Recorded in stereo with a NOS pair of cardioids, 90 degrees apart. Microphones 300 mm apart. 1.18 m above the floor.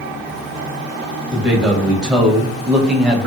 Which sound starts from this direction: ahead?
A man speaking, at 1.3 s.